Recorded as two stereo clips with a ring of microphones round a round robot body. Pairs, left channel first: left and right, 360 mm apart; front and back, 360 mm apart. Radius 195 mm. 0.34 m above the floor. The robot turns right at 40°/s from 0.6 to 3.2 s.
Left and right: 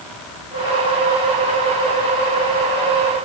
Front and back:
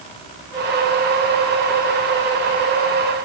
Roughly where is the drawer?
I don't hear a drawer.